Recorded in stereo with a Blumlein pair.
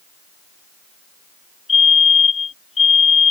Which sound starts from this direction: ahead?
A fire alarm, at 1.7 s.